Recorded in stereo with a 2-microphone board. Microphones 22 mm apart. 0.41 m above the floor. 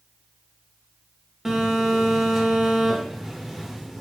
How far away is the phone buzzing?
About 1.1 m.